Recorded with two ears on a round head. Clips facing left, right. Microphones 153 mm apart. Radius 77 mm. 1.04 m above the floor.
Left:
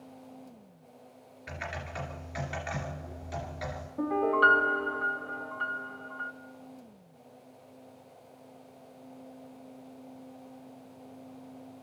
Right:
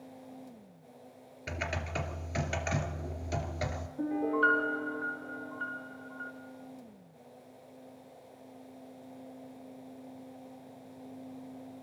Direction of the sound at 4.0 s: 75° left (ahead or behind).